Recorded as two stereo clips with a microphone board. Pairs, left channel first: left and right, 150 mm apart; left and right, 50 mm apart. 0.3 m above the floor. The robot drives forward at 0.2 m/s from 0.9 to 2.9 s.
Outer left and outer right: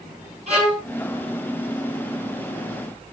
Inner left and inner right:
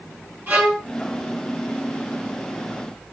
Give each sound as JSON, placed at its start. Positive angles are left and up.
{"t": 0.5, "sound": "a violin", "side_deg": -45, "distance_m": 3.0}